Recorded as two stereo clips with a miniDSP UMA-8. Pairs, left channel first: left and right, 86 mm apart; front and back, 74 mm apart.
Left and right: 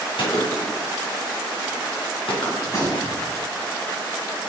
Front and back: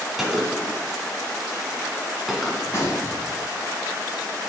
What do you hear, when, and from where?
0.2 s a gunshot: 95° left, 2.5 m
2.6 s a gunshot: 50° left, 4 m